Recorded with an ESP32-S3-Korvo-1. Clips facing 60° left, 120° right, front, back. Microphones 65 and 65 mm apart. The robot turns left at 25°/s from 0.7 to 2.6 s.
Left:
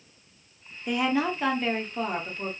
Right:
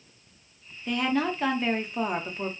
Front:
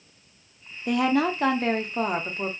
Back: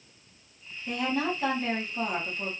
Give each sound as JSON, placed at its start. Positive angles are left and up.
{"t": 0.9, "sound": "a woman speaking", "azimuth_deg": -15, "distance_m": 0.5}